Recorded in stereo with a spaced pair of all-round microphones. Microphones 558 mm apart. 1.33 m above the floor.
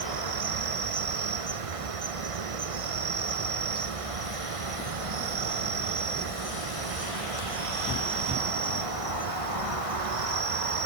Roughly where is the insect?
Right.